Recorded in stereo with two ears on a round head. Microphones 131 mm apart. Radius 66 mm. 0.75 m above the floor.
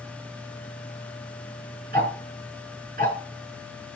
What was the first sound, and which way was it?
Ticking, 65° right (ahead or behind).